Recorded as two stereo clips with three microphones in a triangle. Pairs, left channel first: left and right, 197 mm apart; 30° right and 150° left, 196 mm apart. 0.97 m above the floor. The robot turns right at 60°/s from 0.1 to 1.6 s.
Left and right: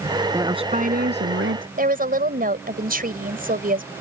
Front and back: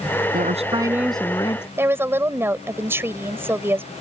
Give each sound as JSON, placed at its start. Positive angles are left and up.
{"t": 0.3, "sound": "a woman speaking", "azimuth_deg": -165}
{"t": 1.8, "sound": "a woman speaking", "azimuth_deg": -130}